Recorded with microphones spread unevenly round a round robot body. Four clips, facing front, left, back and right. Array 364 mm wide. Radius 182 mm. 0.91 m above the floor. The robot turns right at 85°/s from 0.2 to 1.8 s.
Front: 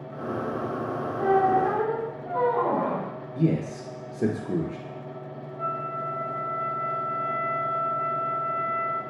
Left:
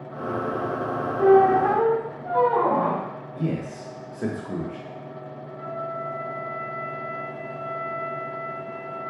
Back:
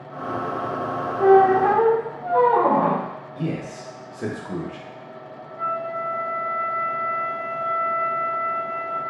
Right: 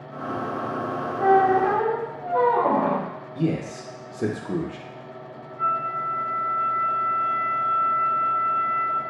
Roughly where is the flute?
Behind.